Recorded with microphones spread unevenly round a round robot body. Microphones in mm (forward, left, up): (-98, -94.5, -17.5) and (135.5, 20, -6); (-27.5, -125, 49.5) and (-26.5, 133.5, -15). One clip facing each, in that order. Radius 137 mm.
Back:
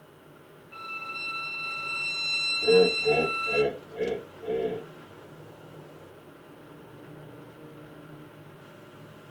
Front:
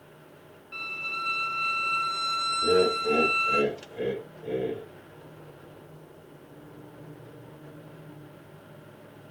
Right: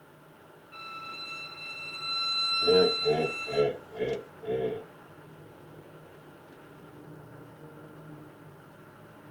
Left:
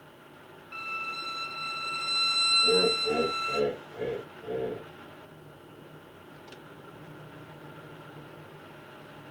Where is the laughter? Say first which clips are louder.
Back 3 dB, right 4 dB; 60° right, 2.0 m.